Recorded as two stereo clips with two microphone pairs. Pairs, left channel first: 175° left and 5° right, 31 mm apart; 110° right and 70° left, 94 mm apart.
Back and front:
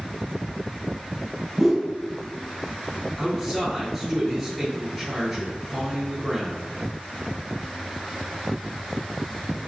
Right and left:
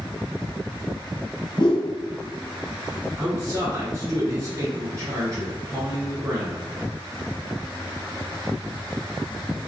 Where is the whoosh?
85° right, 1.0 m.